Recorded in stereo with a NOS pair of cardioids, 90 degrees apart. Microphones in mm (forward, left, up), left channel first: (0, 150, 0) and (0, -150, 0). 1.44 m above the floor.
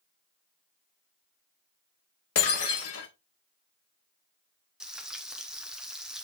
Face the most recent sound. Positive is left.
turn(degrees=0)